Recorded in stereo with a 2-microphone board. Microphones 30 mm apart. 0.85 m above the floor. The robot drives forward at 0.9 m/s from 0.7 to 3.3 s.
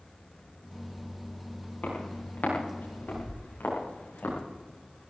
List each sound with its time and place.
1.8 s footsteps: 70° left (ahead or behind), 9 m; by 4.4 s 85° left, 8.5 m